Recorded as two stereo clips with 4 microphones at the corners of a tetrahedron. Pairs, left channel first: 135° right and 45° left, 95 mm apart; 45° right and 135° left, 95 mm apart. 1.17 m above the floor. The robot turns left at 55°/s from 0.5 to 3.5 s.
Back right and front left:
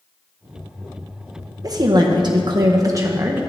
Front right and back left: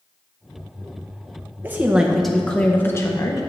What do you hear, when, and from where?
1.6 s a woman speaking: 75° left, 0.6 m; by 3.4 s 20° right, 0.6 m